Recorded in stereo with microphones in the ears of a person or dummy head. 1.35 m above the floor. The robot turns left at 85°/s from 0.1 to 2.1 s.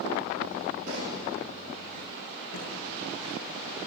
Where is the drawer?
65° left (ahead or behind), 8 m.